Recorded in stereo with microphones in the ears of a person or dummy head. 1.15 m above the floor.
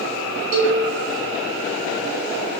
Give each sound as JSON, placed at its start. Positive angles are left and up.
{"t": 0.5, "sound": "a cowbell", "side_deg": -45, "distance_m": 1.1}